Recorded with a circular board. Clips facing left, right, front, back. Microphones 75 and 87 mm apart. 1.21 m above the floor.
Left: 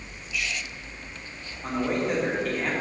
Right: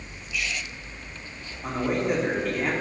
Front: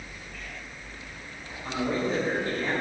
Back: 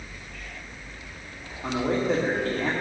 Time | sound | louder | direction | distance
1.6 | a man speaking | right 1 dB, back 3 dB | 175° right | 2.5 m